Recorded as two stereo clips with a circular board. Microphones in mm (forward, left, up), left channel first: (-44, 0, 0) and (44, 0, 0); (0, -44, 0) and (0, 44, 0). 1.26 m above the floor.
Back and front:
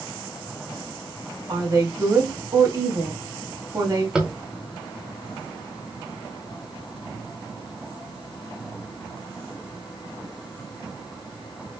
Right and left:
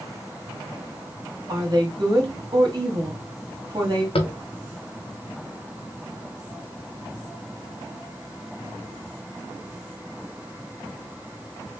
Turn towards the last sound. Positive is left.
turn(degrees=-80)